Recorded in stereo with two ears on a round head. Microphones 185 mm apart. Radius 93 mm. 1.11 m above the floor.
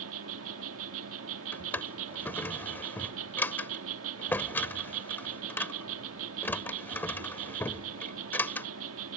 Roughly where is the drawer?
Centre.